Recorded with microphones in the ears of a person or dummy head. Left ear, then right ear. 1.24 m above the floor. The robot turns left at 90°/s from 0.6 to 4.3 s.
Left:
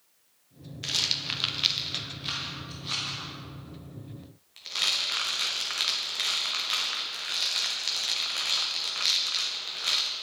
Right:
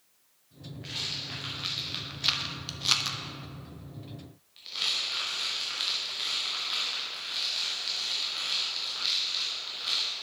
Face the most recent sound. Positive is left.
turn(degrees=30)  # may be behind; listen again after turning